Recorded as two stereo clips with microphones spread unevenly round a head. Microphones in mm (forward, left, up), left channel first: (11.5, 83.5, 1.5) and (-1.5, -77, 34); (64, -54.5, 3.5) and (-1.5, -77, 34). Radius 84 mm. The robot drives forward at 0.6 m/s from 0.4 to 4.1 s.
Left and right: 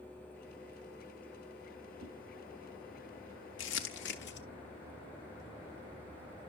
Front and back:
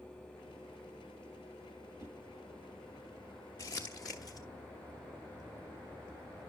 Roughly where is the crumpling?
Left.